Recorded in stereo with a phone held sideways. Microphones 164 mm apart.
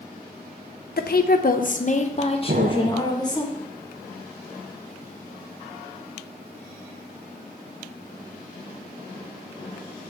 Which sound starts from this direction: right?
An explosion, at 2.5 s.